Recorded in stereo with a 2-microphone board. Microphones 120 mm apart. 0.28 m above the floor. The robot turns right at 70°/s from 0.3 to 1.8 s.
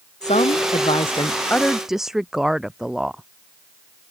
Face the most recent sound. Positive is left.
turn(degrees=-175)